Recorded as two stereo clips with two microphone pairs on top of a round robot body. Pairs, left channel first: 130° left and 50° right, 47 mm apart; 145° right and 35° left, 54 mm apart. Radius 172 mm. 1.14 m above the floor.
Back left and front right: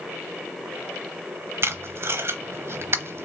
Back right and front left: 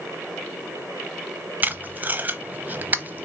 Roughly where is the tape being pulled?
Ahead.